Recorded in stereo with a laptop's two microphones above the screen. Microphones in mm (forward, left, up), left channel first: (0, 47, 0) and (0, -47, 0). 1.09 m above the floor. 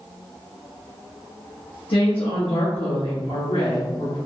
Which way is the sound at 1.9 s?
85° left.